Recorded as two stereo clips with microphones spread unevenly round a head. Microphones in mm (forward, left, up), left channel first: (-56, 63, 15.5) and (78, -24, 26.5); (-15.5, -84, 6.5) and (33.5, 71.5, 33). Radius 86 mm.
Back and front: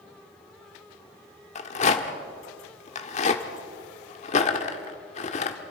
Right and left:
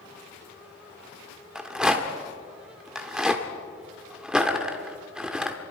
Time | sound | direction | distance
1.6 | a rattle | 140° left | 1.3 m